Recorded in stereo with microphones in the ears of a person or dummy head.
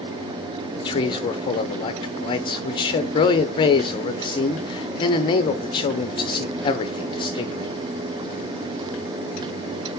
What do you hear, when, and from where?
0.8 s a man speaking: 25° left (ahead or behind), 0.8 m